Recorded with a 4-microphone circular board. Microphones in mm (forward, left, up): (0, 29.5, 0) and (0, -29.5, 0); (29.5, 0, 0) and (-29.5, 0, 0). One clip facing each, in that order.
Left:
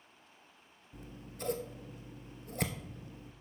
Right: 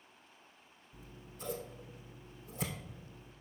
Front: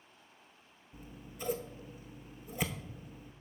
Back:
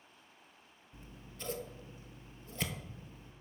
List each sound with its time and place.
0.9 s scissors: 80° left, 0.7 m